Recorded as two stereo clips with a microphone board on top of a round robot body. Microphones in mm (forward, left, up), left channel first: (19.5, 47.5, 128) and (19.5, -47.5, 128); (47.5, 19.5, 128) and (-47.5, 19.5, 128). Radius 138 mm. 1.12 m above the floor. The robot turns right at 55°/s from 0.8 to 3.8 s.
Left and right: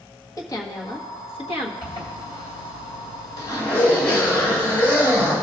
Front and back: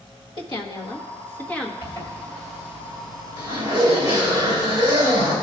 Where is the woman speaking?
35° left, 1.5 m; by 1.7 s 85° left, 1.5 m.